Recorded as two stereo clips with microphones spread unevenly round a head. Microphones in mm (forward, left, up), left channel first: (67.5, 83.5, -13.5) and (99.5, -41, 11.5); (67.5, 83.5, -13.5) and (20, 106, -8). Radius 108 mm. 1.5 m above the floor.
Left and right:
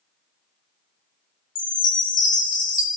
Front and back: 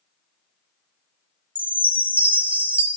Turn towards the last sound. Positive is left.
turn(degrees=105)